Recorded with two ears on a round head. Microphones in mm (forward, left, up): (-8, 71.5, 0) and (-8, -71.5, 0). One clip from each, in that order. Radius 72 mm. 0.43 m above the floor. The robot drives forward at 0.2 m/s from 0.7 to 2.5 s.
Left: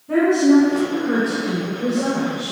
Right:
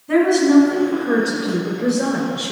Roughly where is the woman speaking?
Right.